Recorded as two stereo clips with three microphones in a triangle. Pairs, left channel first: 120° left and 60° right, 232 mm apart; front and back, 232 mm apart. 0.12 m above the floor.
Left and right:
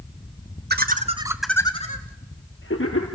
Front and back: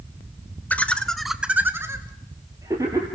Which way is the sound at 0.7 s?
80° right.